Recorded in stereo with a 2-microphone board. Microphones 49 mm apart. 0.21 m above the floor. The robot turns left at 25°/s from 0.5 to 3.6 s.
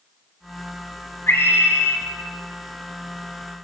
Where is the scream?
55° left (ahead or behind), 3.5 m; by 2.0 s 65° left (ahead or behind), 3.5 m.